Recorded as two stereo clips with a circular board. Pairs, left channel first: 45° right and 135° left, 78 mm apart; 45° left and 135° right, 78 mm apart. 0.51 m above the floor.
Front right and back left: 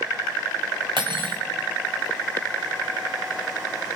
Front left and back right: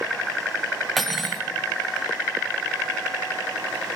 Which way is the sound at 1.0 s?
135° left.